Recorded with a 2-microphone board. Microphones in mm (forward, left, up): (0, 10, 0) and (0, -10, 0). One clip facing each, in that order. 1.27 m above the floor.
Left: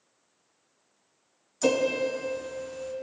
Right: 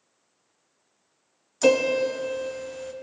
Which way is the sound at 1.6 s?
25° right (ahead or behind).